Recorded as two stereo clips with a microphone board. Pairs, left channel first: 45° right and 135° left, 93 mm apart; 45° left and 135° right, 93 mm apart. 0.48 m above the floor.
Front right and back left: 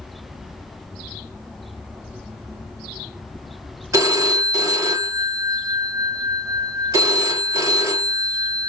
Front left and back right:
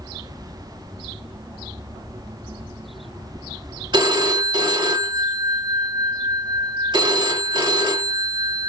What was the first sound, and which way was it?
A phone ringing, 170° right.